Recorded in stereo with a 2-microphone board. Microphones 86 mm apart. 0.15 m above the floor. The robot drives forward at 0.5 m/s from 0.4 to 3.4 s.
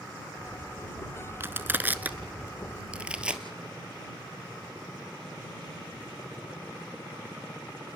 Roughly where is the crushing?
Right.